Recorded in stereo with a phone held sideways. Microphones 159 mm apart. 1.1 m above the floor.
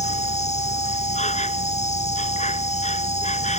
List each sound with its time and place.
0.0 s an insect: 45° left (ahead or behind)